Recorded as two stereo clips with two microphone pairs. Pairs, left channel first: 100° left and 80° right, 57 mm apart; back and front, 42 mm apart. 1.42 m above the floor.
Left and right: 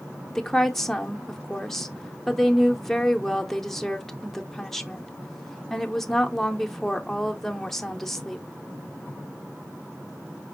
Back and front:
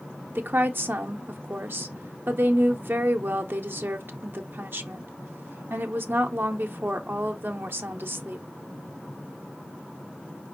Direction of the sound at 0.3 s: 20° left.